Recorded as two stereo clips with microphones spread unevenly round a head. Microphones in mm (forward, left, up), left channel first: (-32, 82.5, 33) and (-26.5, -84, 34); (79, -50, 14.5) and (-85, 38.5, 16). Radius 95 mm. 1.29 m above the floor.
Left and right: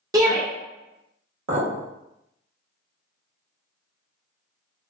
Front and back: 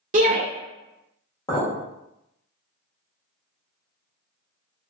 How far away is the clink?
About 1.2 m.